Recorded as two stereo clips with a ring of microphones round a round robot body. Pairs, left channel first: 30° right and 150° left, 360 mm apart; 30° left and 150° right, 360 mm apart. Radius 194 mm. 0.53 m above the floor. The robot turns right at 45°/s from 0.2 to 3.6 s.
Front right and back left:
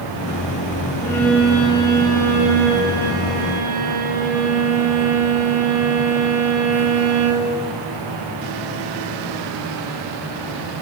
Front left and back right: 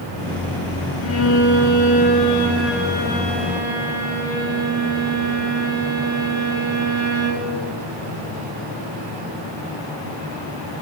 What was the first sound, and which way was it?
A violin, 45° left.